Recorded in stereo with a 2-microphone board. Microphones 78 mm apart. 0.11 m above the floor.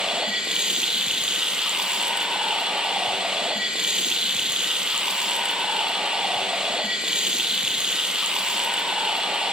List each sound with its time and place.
0.0 s running water: 10° right (ahead or behind), 1.4 m